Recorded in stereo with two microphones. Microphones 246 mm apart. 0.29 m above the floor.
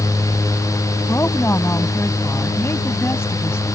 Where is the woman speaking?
10° left (ahead or behind).